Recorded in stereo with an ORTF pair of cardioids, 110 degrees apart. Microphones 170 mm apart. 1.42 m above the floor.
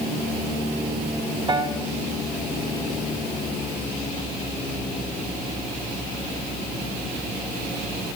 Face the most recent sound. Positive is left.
turn(degrees=-25)